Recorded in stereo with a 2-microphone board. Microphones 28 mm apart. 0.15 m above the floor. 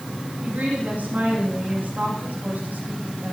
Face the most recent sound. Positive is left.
turn(degrees=-70)  # may be behind; listen again after turning